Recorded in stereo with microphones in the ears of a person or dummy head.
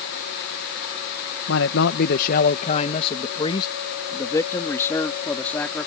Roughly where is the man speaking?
Left.